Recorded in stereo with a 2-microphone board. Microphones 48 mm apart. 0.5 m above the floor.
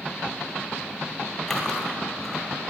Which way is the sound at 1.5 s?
10° left (ahead or behind).